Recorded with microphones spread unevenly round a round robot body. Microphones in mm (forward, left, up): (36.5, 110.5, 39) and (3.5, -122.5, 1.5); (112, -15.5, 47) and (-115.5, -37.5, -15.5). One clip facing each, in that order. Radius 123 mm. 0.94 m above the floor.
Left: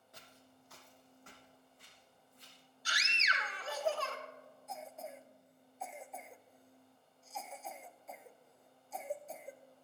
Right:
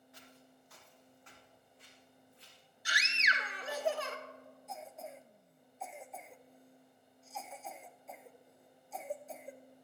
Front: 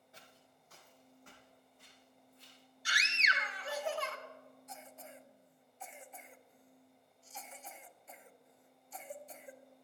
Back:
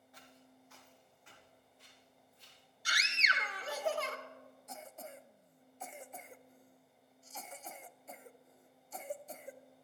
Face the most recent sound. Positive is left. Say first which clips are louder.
# even, back 4 dB
turn(degrees=180)